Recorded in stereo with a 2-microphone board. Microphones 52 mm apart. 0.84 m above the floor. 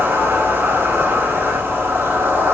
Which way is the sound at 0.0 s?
50° right (ahead or behind).